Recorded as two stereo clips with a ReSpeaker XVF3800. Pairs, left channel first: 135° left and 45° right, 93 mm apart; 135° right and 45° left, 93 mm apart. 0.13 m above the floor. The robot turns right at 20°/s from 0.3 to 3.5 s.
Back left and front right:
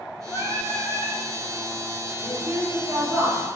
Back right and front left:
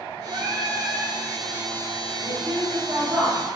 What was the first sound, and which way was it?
Singing, 75° left.